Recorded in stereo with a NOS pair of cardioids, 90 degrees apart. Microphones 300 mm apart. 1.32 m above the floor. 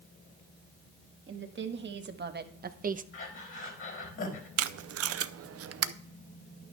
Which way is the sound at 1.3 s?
40° right.